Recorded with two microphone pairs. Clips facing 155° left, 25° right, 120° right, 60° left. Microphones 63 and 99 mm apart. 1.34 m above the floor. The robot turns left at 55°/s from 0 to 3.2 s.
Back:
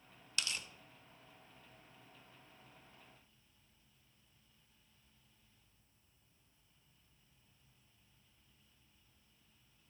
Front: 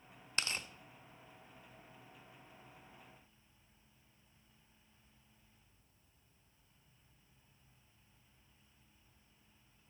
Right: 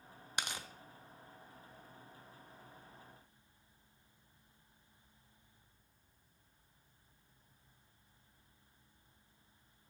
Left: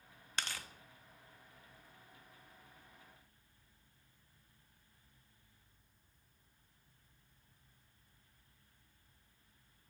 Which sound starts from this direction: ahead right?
Tearing paper, at 0.4 s.